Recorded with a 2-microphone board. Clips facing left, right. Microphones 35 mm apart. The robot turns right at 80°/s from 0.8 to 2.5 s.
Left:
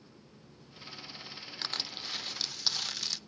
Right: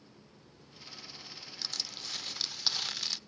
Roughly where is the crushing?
Behind left.